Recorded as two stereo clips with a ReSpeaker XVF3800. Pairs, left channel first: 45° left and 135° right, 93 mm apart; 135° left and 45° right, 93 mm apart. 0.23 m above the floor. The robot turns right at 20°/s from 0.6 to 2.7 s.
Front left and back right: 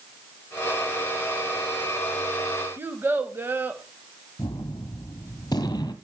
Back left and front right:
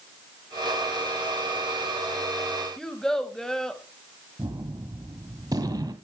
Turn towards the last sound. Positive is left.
turn(degrees=0)